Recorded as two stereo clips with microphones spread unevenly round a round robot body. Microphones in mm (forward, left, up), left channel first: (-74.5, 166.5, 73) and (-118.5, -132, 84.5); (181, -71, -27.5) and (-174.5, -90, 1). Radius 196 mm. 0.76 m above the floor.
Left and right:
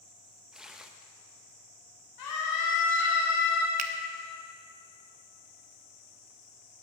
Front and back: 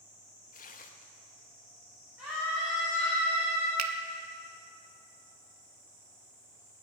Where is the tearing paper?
10° right, 0.8 m.